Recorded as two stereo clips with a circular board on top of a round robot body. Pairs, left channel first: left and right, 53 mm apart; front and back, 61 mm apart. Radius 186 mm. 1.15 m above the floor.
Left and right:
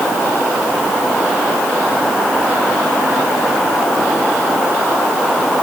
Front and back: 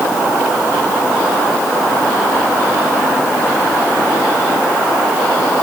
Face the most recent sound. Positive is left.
No sound to turn to.